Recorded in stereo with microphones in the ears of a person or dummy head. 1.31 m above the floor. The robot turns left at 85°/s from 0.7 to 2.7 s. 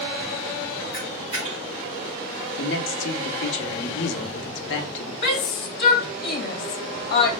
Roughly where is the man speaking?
Left.